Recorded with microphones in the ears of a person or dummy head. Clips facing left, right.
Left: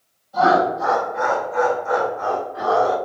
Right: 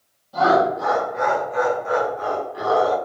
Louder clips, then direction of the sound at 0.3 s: Left 1 dB; 40° right (ahead or behind).